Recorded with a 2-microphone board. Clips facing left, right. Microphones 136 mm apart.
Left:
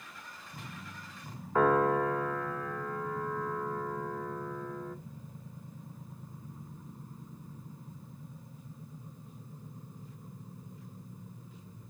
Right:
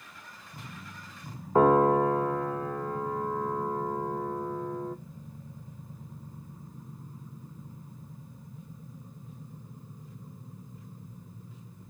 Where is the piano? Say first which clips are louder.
Right 5 dB; 30° right (ahead or behind), 0.6 m.